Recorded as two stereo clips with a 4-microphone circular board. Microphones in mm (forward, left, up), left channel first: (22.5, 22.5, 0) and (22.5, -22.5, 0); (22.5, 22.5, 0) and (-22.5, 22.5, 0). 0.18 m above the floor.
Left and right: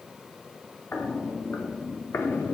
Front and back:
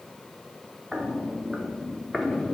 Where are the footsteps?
110° left, 3.5 m; by 2.5 s 80° left, 2 m.